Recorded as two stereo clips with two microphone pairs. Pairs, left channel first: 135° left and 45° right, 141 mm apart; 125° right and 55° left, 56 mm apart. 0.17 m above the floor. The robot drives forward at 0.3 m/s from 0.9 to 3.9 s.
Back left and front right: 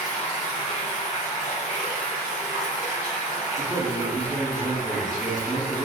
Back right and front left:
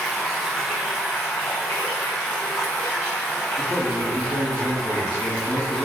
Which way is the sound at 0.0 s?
140° left.